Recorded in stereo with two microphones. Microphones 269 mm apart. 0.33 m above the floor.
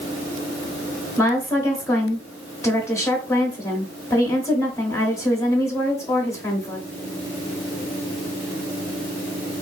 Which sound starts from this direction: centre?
A woman speaking, at 1.2 s.